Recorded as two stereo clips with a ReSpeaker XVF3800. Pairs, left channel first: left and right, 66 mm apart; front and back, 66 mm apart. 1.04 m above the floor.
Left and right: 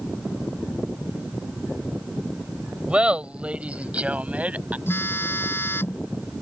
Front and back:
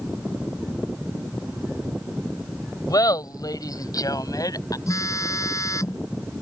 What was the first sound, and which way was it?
Laughter, 15° right.